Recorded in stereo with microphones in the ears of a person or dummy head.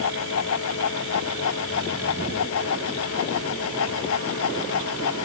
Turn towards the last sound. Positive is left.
turn(degrees=80)